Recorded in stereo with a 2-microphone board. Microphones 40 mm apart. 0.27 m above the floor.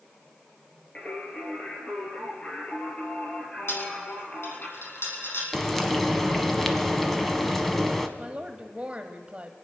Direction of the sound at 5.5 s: 5° left (ahead or behind).